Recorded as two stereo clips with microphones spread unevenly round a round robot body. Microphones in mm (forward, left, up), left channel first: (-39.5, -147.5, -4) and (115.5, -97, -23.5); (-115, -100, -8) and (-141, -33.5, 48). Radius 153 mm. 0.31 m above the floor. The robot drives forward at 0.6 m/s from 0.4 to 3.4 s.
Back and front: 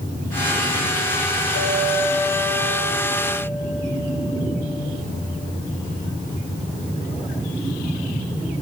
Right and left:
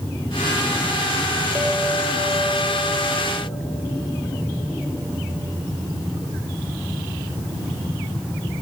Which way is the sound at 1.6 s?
170° left.